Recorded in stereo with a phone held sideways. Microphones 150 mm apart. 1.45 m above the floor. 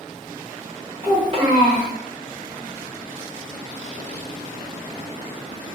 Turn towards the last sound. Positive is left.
turn(degrees=-35)  # may be behind; listen again after turning